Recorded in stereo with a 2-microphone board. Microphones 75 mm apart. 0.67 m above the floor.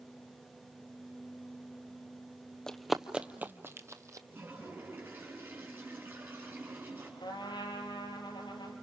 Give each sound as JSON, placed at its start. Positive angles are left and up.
{"t": 2.7, "sound": "running footsteps", "side_deg": 5, "distance_m": 0.9}
{"t": 4.3, "sound": "a toilet flushing", "side_deg": -25, "distance_m": 5.5}
{"t": 7.2, "sound": "a trumpet", "side_deg": 85, "distance_m": 4.0}